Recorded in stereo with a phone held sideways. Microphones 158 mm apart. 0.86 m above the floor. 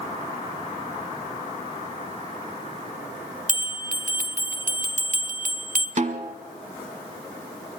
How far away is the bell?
About 1.3 m.